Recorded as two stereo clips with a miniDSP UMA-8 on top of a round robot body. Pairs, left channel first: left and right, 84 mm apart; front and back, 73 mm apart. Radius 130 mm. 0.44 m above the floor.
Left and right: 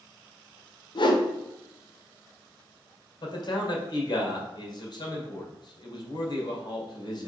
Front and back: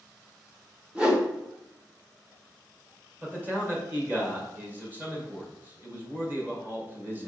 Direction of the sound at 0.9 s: 100° left.